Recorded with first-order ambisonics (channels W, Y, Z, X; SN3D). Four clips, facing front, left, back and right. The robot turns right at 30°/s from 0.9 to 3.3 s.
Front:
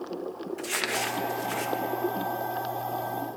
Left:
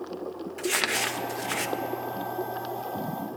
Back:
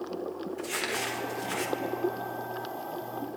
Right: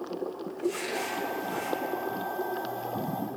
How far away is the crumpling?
About 0.7 m.